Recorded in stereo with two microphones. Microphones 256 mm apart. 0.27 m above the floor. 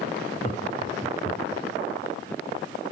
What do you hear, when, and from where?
0.4 s laughter: 30° left (ahead or behind), 3.5 m